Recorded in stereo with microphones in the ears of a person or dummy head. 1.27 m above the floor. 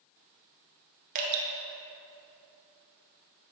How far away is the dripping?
About 1.6 m.